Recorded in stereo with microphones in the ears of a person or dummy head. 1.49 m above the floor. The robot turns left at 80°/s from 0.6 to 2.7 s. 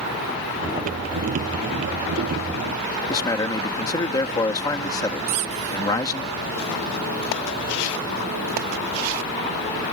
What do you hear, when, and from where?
3.1 s a man speaking: 15° left (ahead or behind)
5.3 s a squeak: 45° right (ahead or behind)